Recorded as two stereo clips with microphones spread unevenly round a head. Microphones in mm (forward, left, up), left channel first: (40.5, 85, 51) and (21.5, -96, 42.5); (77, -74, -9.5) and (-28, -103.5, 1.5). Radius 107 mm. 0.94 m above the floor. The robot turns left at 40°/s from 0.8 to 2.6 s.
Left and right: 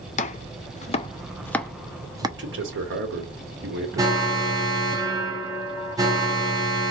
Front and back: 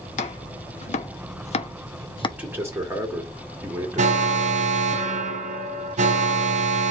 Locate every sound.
0.2 s chopping: 30° left, 0.6 m; by 2.3 s 30° right, 0.6 m
2.4 s a man speaking: 85° right, 1.8 m; by 4.9 s 95° right, 1.8 m
4.0 s an alarm: 170° right, 0.6 m